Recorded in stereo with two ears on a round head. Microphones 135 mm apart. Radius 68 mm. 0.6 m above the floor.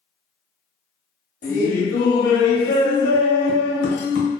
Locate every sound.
1.4 s laughter: 55° left (ahead or behind), 1.3 m